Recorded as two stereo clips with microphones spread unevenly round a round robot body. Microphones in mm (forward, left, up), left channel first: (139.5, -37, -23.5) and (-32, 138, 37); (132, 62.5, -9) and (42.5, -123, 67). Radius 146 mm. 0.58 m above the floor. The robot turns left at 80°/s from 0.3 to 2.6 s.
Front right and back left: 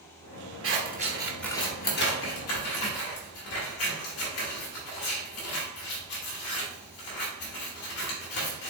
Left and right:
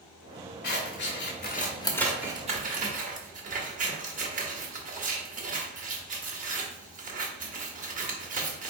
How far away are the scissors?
About 1.5 m.